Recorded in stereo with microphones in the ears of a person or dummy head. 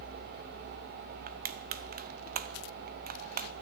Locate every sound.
1.3 s crushing: 45° right (ahead or behind), 0.5 m